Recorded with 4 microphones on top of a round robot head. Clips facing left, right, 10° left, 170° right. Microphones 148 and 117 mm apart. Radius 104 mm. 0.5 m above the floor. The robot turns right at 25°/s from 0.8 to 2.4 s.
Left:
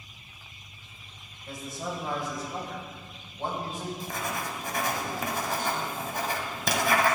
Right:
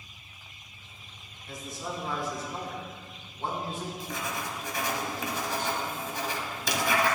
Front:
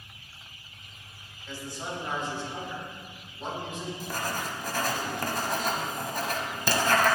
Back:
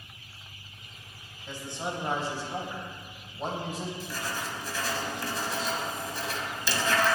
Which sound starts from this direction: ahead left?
Writing, at 4.0 s.